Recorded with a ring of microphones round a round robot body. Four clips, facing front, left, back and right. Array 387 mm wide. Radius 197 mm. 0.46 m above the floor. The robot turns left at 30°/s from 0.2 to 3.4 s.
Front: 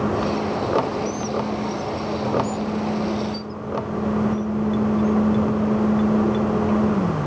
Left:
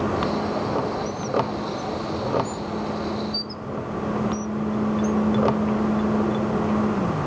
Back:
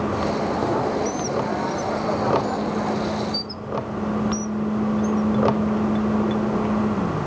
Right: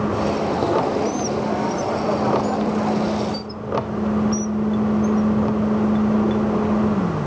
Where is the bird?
115° right; by 5.2 s 175° left.